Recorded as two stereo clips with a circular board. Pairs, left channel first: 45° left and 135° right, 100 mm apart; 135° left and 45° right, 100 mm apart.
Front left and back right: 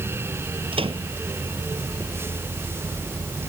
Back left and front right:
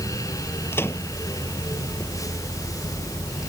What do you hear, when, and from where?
0.7 s a microwave: 160° right